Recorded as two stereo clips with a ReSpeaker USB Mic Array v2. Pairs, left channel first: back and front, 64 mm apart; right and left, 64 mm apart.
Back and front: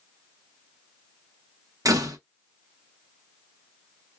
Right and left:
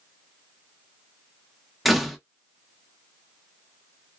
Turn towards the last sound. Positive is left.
turn(degrees=0)